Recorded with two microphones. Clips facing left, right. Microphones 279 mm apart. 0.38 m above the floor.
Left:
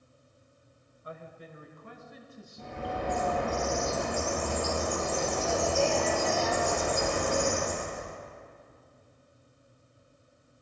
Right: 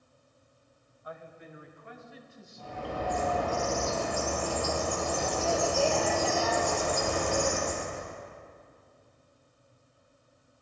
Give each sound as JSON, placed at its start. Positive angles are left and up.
{"t": 1.0, "sound": "a man speaking", "side_deg": 30, "distance_m": 1.4}
{"t": 2.6, "sound": "a bird", "side_deg": 20, "distance_m": 3.0}